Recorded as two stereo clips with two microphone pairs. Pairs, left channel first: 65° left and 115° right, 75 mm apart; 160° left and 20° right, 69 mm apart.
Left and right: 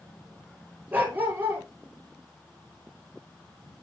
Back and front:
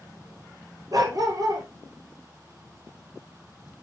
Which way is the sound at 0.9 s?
50° right.